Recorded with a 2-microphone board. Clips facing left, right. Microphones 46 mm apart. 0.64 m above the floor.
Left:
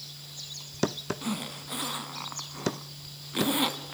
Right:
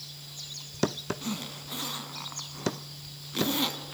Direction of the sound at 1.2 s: 15° left (ahead or behind).